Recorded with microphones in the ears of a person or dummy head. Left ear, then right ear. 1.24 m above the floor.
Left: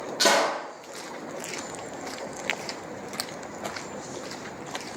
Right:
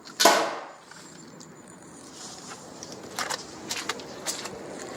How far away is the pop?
About 0.8 m.